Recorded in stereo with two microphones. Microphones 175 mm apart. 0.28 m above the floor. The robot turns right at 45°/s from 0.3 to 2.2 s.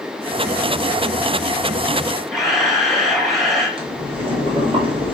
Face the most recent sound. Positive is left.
turn(degrees=-30)  # may be behind; listen again after turning